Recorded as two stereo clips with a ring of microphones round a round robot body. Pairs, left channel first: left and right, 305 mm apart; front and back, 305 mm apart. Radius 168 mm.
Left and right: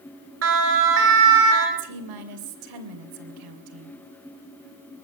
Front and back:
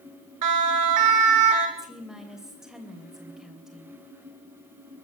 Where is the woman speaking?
90° right, 3 m.